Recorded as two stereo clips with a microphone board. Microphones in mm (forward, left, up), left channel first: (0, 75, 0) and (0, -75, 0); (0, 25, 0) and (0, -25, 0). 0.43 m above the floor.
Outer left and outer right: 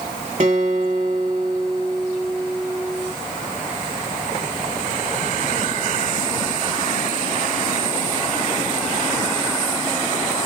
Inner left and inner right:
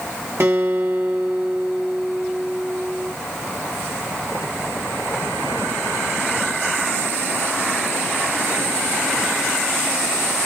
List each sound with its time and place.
0.4 s a guitar: 55° right (ahead or behind), 1.4 m